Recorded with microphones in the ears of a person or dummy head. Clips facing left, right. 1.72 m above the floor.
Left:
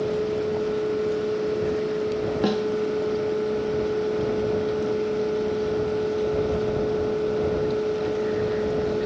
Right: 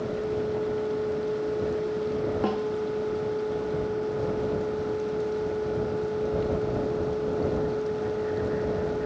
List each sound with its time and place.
2.4 s a snare drum: 25° left (ahead or behind)